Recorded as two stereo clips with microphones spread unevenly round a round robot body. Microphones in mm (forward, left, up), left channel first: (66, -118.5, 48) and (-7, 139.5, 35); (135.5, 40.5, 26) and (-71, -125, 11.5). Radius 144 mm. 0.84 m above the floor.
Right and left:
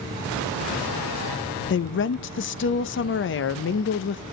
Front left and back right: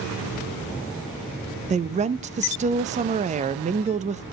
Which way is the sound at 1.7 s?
95° right.